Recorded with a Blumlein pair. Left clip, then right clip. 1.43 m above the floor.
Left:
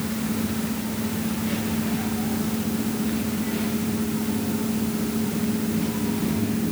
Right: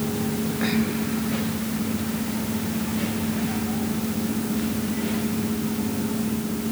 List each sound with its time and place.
Only background noise.